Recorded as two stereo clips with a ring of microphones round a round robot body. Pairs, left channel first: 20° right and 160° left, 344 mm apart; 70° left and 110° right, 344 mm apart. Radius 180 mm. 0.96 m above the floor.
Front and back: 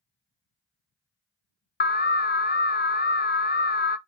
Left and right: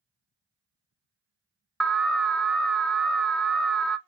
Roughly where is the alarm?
Ahead.